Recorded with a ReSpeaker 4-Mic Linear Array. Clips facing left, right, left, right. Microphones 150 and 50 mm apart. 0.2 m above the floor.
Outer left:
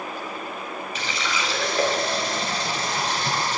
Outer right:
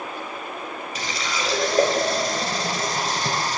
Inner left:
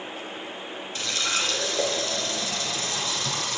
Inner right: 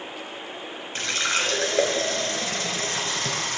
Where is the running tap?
40° right (ahead or behind), 2 m.